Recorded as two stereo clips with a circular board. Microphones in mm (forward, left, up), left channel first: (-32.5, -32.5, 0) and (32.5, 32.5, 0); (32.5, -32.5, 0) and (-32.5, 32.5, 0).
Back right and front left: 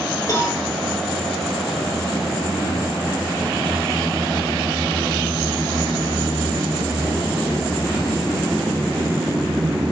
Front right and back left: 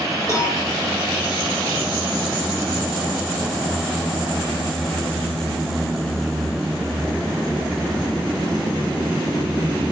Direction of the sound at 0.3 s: 95° right.